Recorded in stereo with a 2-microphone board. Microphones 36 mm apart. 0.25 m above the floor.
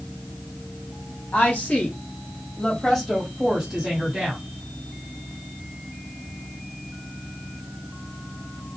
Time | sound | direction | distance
1.3 | a woman speaking | 40° left (ahead or behind) | 1.8 m